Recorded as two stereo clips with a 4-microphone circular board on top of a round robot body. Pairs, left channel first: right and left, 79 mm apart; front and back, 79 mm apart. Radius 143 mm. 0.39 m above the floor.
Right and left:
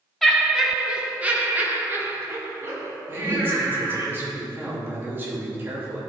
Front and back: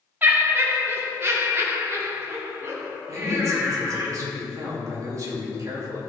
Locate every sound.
0.2 s laughter: 175° right, 1.4 m; by 4.1 s 125° left, 2.5 m
3.1 s a man speaking: 145° left, 2.5 m